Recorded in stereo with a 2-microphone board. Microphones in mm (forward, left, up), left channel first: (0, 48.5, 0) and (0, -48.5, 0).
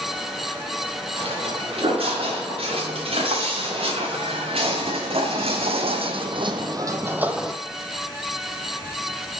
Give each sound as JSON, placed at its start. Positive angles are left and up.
{"t": 1.2, "sound": "footsteps", "side_deg": -70, "distance_m": 4.0}